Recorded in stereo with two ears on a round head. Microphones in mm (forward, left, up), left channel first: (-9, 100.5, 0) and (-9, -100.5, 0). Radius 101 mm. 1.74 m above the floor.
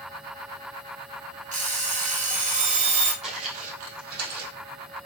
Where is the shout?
I don't hear a shout.